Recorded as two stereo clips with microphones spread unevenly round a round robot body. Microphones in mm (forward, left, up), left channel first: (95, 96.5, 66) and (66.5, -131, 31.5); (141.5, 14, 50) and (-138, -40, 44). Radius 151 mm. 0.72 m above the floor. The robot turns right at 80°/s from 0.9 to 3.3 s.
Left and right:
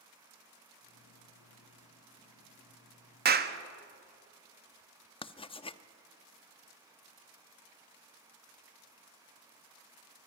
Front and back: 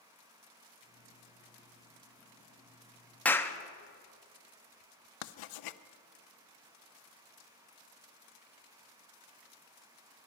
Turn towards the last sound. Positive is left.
turn(degrees=10)